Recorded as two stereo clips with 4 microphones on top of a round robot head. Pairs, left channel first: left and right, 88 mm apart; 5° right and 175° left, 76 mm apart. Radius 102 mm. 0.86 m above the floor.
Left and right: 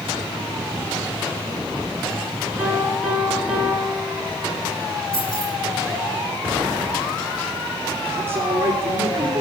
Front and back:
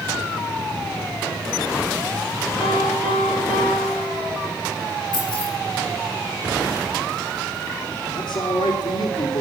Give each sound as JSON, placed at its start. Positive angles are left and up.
{"t": 2.6, "sound": "a piano", "azimuth_deg": -5, "distance_m": 5.0}
{"t": 5.1, "sound": "keys jangling", "azimuth_deg": 5, "distance_m": 6.0}
{"t": 8.1, "sound": "a man speaking", "azimuth_deg": -25, "distance_m": 2.5}